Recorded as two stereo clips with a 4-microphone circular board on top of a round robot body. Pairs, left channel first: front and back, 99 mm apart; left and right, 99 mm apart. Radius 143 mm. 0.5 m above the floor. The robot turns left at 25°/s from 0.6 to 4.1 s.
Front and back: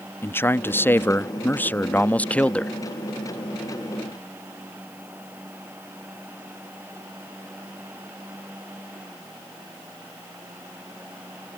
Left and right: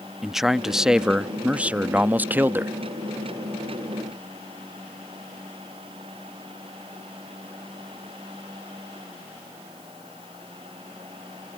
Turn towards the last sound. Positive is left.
turn(degrees=-95)